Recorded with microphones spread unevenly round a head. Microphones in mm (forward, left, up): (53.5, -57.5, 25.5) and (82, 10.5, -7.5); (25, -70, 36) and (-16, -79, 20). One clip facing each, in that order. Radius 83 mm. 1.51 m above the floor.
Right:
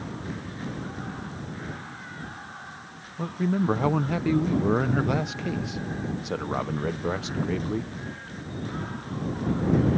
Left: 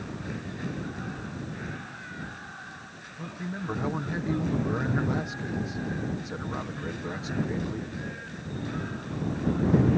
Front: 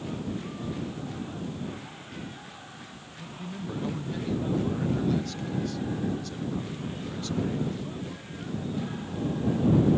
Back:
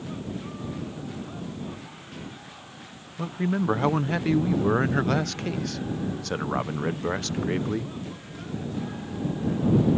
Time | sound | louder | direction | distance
3.2 | a man speaking | right 10 dB, back 12 dB | 175° right | ?